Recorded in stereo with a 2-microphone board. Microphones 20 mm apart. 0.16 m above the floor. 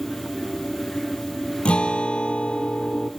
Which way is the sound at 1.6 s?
75° left (ahead or behind).